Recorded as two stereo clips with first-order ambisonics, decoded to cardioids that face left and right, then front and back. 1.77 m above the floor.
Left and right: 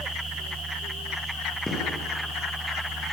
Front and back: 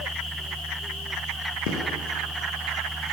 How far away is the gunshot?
About 9.5 m.